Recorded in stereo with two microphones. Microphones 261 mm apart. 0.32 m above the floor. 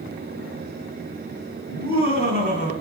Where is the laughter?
60° right (ahead or behind), 2.5 m; by 2.7 s 45° right (ahead or behind), 1.9 m.